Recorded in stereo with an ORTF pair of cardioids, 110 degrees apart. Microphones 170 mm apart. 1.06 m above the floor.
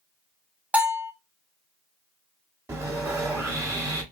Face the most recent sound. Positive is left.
turn(degrees=-15)